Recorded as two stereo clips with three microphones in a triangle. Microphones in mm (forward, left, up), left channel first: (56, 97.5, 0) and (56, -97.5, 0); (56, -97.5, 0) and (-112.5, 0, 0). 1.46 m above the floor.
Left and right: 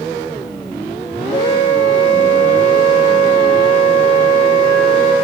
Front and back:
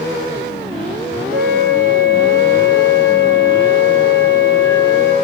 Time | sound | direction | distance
1.3 | a flute | 155° left | 1.6 m